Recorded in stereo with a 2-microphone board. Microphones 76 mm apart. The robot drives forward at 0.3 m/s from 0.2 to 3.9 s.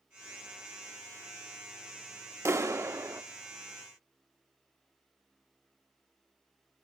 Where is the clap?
40° right (ahead or behind), 0.9 m; by 3.2 s 45° right (ahead or behind), 0.9 m.